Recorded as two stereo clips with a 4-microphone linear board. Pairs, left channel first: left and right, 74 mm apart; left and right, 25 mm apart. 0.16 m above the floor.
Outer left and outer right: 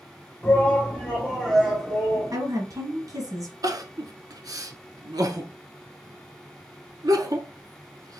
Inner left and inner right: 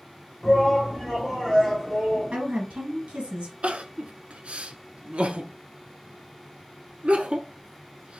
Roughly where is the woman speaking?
Right.